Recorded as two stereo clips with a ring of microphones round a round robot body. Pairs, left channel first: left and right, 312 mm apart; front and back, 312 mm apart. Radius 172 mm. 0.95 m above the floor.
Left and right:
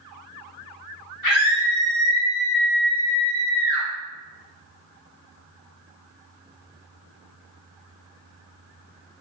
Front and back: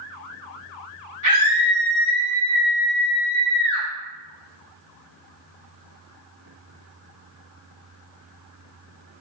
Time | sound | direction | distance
1.2 | a scream | 100° left | 1.3 m